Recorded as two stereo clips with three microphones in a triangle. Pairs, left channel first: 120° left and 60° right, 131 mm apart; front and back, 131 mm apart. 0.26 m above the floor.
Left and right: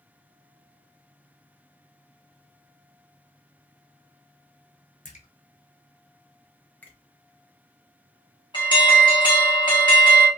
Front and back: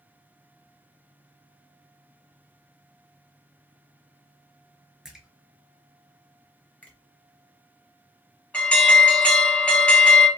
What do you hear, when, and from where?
5.0 s a splash: 95° left, 0.6 m
6.8 s a finger snap: 60° left, 0.8 m
8.5 s an alarm: 80° left, 1.3 m